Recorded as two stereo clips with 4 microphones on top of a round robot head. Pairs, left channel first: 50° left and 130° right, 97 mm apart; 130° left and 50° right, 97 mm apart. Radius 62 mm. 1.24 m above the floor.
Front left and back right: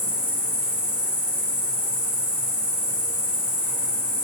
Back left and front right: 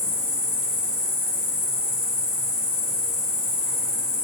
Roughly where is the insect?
Behind left.